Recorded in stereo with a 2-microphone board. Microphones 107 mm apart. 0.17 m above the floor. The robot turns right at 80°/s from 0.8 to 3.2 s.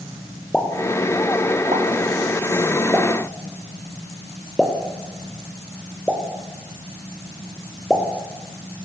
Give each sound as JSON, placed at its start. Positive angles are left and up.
{"t": 0.5, "sound": "a pop", "side_deg": 10, "distance_m": 4.5}